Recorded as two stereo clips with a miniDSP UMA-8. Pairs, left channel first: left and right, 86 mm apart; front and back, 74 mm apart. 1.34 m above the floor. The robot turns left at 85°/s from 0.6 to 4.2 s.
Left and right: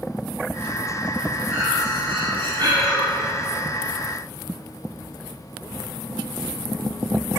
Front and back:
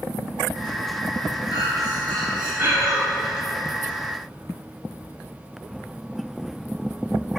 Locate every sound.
1.5 s breathing: 25° right, 5 m; by 3.0 s 155° right, 5 m